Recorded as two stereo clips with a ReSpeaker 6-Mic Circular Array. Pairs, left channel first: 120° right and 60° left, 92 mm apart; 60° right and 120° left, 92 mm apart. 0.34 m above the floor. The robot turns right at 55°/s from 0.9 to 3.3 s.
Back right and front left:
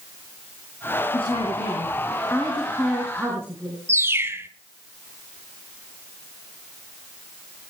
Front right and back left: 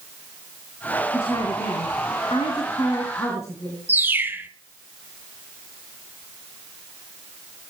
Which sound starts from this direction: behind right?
A woman speaking, at 1.1 s.